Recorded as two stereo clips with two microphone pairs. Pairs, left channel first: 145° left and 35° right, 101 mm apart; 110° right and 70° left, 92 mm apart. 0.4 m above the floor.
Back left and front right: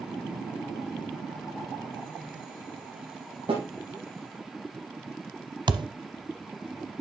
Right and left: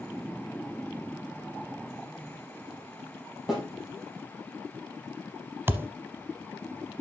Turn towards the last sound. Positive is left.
turn(degrees=5)